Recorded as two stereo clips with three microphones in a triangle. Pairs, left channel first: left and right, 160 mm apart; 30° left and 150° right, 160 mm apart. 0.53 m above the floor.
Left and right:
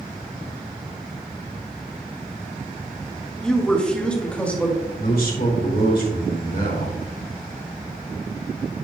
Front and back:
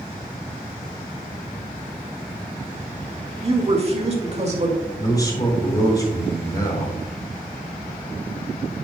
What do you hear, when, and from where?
3.4 s a woman speaking: 175° left, 1.6 m; by 4.8 s 170° left, 2.5 m
5.0 s a man speaking: 95° left, 3 m